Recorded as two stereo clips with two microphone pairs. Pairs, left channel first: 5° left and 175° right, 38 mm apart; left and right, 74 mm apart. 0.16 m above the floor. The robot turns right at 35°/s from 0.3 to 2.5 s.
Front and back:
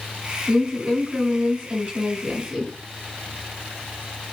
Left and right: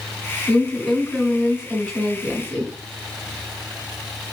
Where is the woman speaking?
155° left, 1.8 m; by 2.7 s 135° right, 1.8 m.